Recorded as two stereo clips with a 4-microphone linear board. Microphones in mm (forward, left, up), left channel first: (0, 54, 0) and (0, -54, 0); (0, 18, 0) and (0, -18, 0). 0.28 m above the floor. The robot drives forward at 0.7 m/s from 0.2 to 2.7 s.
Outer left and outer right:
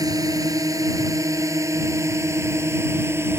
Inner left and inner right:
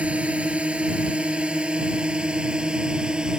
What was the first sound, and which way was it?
A drone, 35° right (ahead or behind).